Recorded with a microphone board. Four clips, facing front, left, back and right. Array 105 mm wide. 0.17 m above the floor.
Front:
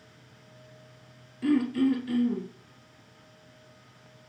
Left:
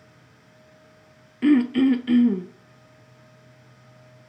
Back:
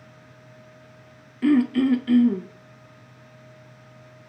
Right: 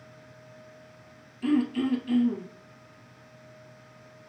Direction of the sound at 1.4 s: 115° left.